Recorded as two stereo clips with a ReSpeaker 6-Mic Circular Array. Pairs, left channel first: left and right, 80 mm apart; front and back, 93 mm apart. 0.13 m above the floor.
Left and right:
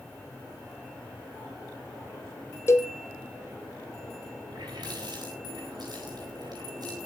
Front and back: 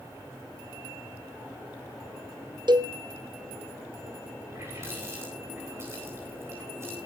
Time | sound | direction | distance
2.7 | a cowbell | 145° left | 0.9 m
4.5 | a running tap | 120° right | 9 m